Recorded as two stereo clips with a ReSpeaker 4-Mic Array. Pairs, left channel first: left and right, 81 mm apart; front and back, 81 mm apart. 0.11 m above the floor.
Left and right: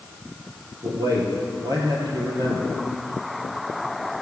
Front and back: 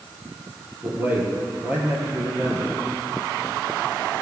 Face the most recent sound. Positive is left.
turn(degrees=-115)